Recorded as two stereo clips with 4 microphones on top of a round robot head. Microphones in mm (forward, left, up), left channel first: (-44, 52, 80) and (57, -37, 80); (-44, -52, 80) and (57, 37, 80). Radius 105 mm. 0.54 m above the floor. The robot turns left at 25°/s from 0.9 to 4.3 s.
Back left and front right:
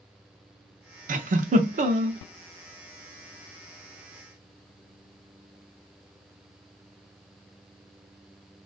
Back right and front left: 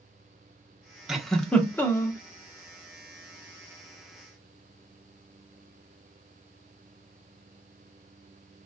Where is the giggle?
45° right, 0.7 m; by 2.2 s 75° right, 0.7 m.